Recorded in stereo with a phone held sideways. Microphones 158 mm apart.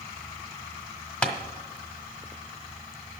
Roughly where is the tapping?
Centre.